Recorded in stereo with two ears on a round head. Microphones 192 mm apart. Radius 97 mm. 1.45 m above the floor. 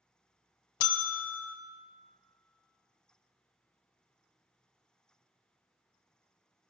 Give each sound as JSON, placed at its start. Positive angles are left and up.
{"t": 0.8, "sound": "a bell", "side_deg": 80, "distance_m": 0.5}